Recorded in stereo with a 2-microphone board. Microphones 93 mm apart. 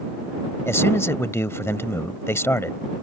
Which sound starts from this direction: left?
A man speaking, at 0.7 s.